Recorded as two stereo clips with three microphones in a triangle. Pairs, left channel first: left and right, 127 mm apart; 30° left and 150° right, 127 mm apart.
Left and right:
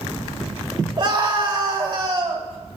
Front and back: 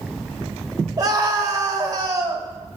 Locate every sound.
1.0 s a scream: 105° right, 1.2 m